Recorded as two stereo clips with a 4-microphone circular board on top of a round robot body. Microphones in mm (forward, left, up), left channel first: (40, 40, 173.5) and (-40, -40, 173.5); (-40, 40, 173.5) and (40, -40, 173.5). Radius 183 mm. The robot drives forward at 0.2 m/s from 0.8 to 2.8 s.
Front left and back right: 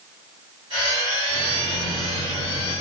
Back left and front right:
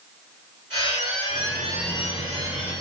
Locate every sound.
1.3 s a microwave: 130° right, 2.5 m; by 2.8 s 135° right, 3 m